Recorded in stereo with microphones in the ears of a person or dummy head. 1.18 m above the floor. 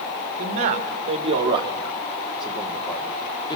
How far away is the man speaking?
About 2.5 m.